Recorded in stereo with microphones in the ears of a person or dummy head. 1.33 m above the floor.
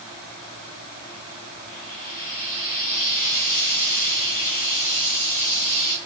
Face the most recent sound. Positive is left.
turn(degrees=45)  # may be behind; listen again after turning